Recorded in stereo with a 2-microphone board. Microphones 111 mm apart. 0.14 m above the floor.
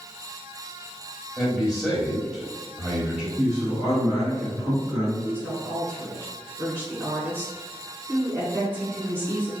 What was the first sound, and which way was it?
A man speaking, 5° right (ahead or behind).